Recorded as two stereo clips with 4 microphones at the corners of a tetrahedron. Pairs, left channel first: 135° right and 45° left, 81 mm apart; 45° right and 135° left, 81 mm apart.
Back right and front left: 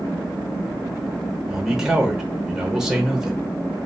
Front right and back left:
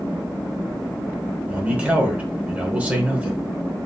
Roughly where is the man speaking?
Behind left.